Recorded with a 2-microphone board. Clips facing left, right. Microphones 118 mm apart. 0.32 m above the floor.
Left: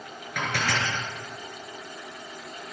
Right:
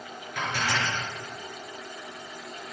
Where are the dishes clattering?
75° left (ahead or behind), 3 m.